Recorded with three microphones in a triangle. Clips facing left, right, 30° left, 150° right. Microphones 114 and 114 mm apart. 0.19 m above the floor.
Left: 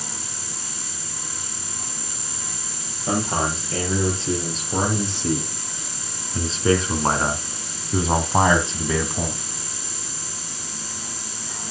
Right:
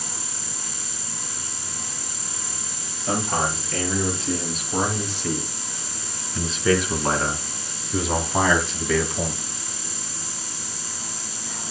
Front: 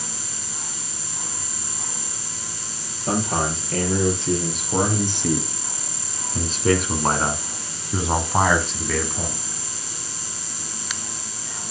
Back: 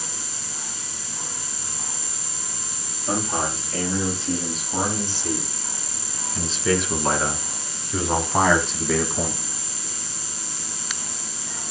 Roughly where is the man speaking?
Ahead left.